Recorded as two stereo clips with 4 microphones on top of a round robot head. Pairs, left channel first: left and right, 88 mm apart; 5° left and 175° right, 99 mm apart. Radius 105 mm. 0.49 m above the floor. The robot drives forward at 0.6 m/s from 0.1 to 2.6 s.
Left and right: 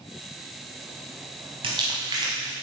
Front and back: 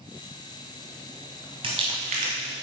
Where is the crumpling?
130° right, 0.6 m; by 2.5 s 155° right, 1.0 m.